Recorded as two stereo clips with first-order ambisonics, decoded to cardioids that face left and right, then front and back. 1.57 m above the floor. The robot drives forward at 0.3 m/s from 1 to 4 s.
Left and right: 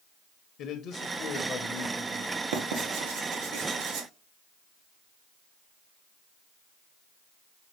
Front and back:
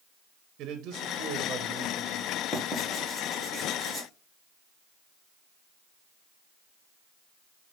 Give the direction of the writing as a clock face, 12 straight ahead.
3 o'clock.